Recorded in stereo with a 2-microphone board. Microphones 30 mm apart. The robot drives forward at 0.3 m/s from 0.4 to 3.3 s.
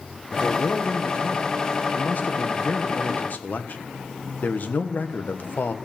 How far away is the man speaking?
About 1.5 m.